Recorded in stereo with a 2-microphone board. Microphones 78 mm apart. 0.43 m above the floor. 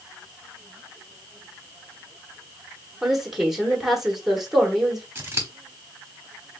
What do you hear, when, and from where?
3.0 s a woman speaking: 5° right (ahead or behind), 1.1 m
5.2 s scissors: 25° right (ahead or behind), 1.2 m